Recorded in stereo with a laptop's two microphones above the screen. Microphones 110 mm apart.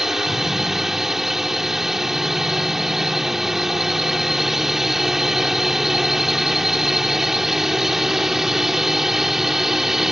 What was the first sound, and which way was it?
A drone, 5° right (ahead or behind).